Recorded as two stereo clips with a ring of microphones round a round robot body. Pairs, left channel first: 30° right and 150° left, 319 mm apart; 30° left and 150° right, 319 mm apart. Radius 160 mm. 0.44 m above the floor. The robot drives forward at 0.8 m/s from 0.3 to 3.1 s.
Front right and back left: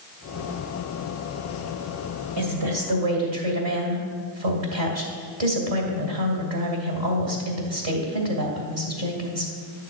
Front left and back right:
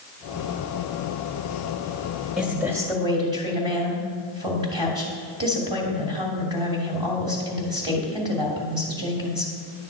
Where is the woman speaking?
120° left, 2 m; by 9.5 s 135° left, 2.5 m.